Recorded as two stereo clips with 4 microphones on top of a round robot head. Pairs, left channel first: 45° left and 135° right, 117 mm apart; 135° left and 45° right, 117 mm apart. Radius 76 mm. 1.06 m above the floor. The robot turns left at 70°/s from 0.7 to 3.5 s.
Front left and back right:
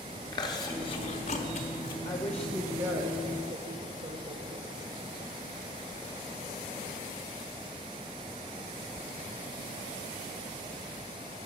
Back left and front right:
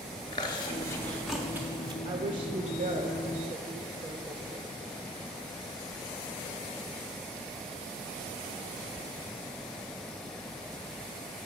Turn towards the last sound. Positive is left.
turn(degrees=-115)